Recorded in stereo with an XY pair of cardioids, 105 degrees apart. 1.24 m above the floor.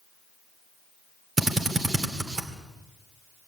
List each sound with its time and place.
1.4 s a drill: 35° right, 2 m